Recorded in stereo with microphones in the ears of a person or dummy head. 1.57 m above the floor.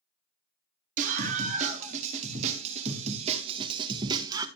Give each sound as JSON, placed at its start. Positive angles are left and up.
{"t": 1.0, "sound": "a scream", "side_deg": -40, "distance_m": 3.0}